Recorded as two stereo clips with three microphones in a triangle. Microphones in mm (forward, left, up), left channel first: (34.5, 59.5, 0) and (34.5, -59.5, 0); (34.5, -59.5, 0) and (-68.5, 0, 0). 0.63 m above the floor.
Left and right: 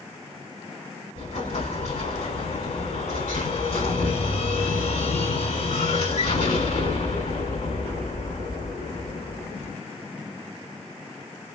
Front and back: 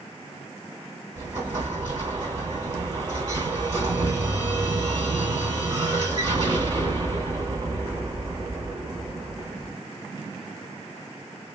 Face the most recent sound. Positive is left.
turn(degrees=105)